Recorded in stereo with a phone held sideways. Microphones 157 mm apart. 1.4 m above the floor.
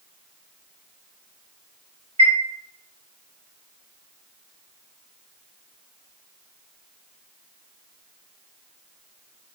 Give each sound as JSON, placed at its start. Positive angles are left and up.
{"t": 2.2, "sound": "a chime", "side_deg": -40, "distance_m": 1.3}